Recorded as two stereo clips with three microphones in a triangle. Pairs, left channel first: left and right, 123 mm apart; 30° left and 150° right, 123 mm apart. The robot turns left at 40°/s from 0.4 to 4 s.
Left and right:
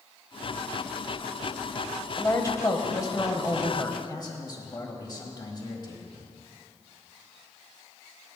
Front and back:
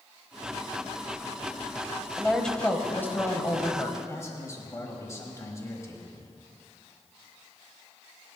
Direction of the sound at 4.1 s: 75° left.